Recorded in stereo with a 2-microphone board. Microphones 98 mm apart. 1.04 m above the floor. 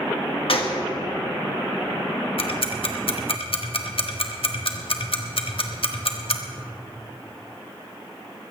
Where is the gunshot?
70° left (ahead or behind), 1.7 m.